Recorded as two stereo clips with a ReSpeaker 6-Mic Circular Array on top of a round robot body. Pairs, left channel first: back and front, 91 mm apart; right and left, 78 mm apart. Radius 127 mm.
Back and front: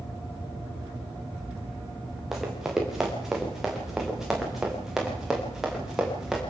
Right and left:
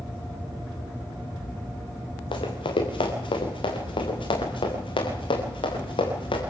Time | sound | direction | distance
2.3 | running footsteps | 85° right | 5.5 m